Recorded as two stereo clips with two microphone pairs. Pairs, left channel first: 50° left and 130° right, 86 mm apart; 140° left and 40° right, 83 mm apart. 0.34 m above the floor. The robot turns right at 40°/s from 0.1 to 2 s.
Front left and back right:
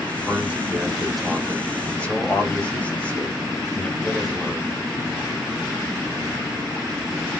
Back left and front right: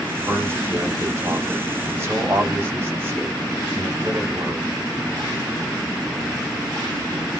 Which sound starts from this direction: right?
A man speaking, at 0.3 s.